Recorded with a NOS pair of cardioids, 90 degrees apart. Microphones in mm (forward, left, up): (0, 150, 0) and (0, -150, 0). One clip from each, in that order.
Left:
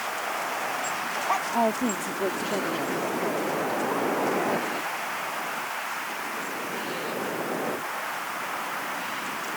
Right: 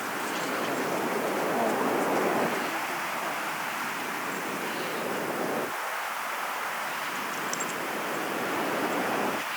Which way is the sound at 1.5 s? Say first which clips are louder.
Left 1 dB; 45° left.